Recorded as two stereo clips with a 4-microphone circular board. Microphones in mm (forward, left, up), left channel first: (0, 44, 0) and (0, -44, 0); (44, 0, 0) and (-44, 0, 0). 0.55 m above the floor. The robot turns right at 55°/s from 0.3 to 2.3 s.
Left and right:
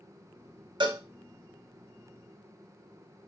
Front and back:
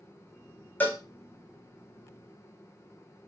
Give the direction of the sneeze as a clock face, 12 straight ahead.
I don't hear a sneeze.